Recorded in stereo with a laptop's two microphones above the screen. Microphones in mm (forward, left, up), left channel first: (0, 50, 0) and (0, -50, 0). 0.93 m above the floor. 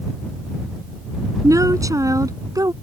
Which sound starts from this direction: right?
A woman speaking, at 1.4 s.